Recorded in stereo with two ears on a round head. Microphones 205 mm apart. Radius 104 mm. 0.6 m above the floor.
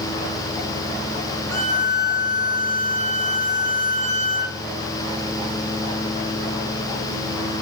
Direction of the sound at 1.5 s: 15° left (ahead or behind).